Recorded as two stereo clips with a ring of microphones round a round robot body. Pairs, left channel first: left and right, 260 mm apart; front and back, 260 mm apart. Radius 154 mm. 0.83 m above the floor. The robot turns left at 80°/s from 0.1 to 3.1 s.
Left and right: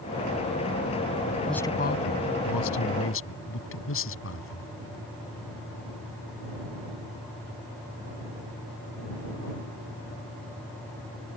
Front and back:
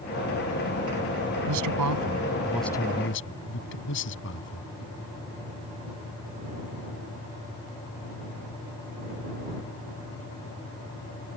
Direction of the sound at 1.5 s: 175° right.